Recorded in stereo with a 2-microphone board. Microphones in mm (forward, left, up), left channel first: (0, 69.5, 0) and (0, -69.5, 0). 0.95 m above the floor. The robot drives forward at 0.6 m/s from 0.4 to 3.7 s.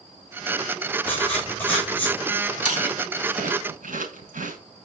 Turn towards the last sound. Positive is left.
turn(degrees=-70)  # may be behind; listen again after turning